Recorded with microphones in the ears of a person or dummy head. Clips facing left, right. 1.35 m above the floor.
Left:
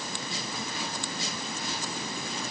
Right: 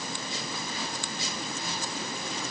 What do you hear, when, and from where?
Only background noise.